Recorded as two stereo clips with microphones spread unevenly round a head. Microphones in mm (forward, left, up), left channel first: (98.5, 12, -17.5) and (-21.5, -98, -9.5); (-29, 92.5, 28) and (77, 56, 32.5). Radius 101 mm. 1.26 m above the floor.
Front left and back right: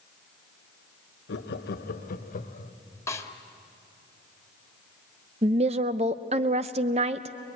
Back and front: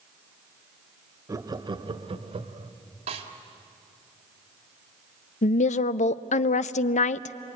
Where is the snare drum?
30° right, 2 m.